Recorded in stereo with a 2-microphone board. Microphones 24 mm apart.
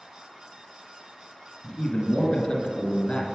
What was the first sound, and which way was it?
A man speaking, 30° left (ahead or behind).